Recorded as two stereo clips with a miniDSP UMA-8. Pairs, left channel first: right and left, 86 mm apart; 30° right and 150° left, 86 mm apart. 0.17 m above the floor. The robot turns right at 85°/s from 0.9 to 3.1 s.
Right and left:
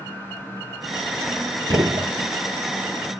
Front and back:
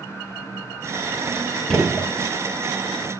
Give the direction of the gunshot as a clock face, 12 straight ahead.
10 o'clock.